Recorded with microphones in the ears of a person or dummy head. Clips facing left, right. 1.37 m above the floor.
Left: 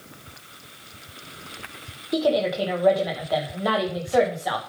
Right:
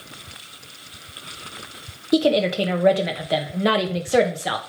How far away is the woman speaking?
About 1.4 m.